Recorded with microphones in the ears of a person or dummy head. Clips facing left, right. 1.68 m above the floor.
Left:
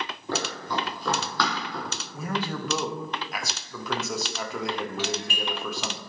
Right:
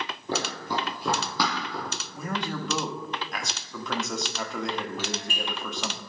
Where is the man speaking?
5° left (ahead or behind), 0.8 m.